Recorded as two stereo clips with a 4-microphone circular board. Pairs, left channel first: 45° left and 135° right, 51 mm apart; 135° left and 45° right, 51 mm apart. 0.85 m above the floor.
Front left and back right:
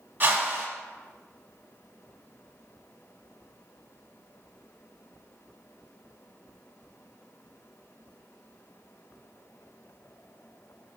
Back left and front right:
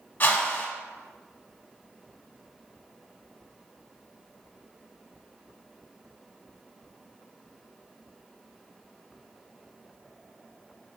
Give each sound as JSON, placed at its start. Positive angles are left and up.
{"t": 0.2, "sound": "a whoosh", "azimuth_deg": -175, "distance_m": 0.9}